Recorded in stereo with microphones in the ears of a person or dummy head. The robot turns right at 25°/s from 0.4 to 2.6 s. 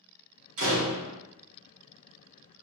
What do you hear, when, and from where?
0.6 s a door slam: 80° right, 1.1 m; by 1.2 s 70° right (ahead or behind), 1.1 m